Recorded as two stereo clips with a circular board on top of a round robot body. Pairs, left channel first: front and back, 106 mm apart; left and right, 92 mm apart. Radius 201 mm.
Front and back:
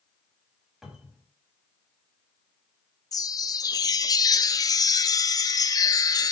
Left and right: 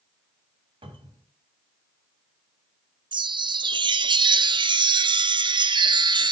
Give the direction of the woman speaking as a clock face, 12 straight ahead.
No woman speaking in this recording.